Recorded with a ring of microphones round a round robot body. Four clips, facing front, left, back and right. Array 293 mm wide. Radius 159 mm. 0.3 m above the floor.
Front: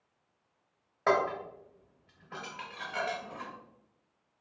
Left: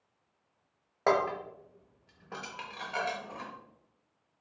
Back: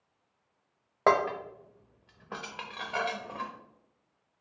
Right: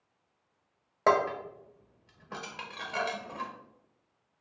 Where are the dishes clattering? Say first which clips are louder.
Right 2 dB, back 3 dB; 170° right, 1.1 m.